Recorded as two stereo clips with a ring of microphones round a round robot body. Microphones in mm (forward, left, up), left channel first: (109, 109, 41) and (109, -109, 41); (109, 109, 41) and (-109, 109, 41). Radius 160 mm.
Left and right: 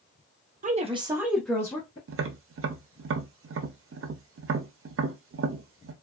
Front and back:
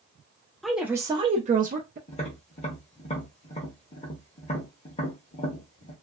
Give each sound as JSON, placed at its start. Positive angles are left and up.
{"t": 0.6, "sound": "a woman speaking", "azimuth_deg": -90, "distance_m": 0.6}
{"t": 2.1, "sound": "tapping", "azimuth_deg": -65, "distance_m": 0.6}